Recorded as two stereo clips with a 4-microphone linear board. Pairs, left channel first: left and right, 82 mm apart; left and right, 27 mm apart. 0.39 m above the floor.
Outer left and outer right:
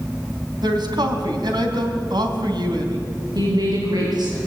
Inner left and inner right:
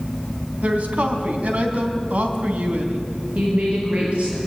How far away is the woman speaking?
About 7 m.